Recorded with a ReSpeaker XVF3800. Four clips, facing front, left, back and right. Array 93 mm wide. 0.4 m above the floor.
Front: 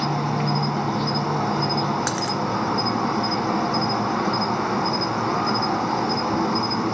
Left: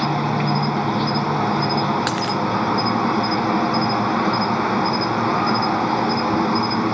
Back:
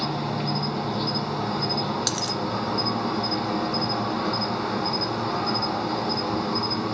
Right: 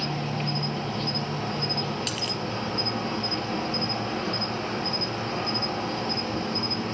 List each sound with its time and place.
0.0 s an insect: 75° left, 1.6 m
2.1 s a dropped coin: 65° left, 1.8 m